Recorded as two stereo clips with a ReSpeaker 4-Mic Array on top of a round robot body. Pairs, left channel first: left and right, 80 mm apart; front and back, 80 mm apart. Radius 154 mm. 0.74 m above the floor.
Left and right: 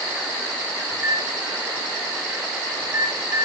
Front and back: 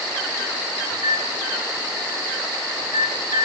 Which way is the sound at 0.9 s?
150° right.